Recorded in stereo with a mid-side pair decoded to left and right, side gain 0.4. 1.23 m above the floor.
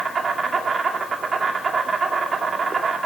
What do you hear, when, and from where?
0.0 s an insect: 45° right, 2 m